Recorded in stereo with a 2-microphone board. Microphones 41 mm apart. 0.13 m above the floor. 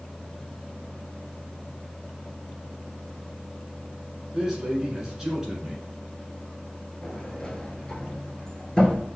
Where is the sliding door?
20° left (ahead or behind), 0.9 m.